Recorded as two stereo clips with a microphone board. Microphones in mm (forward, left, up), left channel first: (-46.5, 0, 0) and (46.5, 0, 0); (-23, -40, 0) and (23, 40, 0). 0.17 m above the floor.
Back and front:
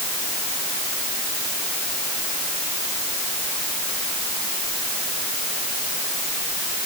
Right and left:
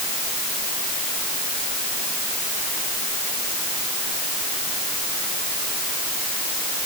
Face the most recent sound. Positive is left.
No sound to turn to.